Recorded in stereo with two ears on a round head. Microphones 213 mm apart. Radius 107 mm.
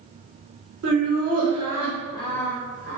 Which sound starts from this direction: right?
Laughter, at 0.8 s.